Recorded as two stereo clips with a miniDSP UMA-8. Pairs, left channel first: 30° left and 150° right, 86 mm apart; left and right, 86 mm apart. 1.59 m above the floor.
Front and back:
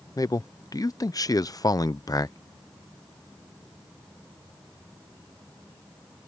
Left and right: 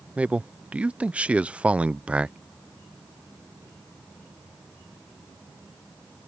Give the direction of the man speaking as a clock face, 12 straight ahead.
12 o'clock.